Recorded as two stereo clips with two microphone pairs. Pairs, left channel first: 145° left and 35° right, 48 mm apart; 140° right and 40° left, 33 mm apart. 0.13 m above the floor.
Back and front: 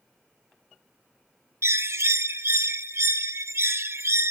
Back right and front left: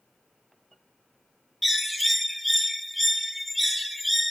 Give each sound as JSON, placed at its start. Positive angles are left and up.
{"t": 1.6, "sound": "a bird", "azimuth_deg": -50, "distance_m": 0.5}